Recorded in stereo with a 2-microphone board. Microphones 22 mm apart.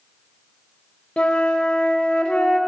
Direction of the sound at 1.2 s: 65° left (ahead or behind).